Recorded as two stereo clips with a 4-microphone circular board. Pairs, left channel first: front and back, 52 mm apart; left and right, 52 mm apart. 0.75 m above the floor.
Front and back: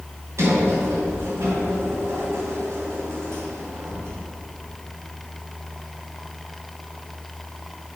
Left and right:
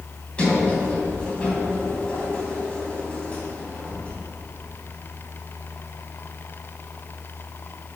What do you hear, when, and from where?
0.4 s a sliding door: 155° left, 2.5 m